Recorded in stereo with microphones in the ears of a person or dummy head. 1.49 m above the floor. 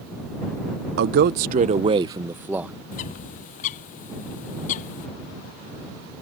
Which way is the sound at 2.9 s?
45° left (ahead or behind).